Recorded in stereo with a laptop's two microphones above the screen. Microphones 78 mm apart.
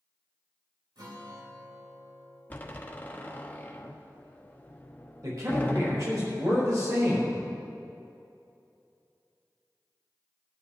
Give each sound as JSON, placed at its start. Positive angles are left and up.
{"t": 0.9, "sound": "a guitar", "side_deg": -85, "distance_m": 5.0}
{"t": 2.5, "sound": "a door slam", "side_deg": 20, "distance_m": 1.3}
{"t": 5.2, "sound": "a man speaking", "side_deg": -50, "distance_m": 4.5}